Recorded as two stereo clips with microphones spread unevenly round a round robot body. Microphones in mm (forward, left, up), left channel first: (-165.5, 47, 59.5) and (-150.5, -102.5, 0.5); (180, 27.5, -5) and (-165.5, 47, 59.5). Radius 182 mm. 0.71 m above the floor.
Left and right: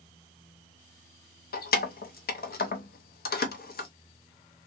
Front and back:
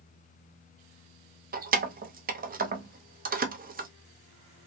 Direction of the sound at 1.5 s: 110° left.